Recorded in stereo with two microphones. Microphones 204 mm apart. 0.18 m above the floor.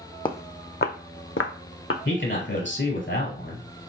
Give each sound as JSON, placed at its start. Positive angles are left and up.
{"t": 0.2, "sound": "footsteps", "side_deg": 25, "distance_m": 0.5}
{"t": 2.0, "sound": "a man speaking", "side_deg": 70, "distance_m": 2.5}